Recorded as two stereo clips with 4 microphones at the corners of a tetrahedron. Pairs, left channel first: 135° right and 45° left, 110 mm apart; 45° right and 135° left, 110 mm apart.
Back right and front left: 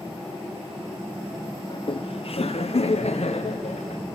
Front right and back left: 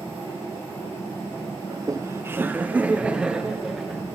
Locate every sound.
1.7 s laughter: 175° right, 0.6 m; by 4.0 s 140° right, 1.7 m